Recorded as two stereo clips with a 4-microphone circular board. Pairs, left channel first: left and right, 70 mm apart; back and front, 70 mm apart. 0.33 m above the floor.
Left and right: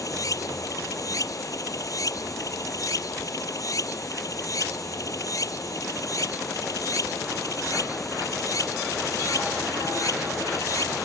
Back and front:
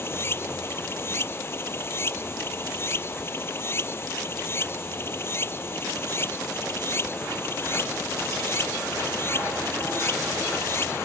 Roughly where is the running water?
Behind left.